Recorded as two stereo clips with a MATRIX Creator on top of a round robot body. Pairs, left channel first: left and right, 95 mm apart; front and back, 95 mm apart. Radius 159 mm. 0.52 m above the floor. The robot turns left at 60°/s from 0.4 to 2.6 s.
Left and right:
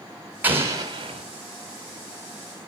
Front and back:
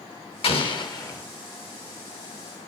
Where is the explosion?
20° right, 2 m; by 1.2 s 65° right, 2 m.